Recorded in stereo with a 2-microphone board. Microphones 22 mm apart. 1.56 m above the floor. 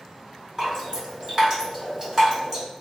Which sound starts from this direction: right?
Dripping, at 0.6 s.